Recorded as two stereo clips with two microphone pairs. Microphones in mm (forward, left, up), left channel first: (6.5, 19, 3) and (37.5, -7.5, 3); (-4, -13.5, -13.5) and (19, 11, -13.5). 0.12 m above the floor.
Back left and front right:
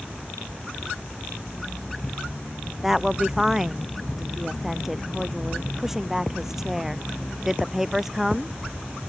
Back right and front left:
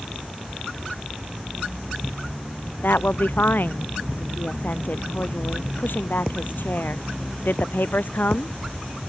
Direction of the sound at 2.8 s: 120° right.